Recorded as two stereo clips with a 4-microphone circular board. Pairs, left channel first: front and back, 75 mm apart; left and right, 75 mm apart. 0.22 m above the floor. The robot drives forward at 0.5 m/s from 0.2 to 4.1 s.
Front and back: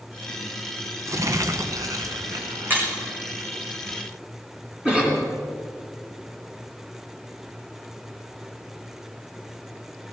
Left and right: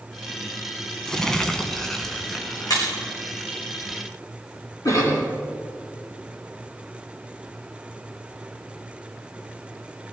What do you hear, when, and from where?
1.1 s crumpling: 170° left, 1.0 m; by 3.5 s 175° left, 2 m
2.7 s breaking glass: 120° left, 5.5 m
4.8 s a cough: 110° left, 3 m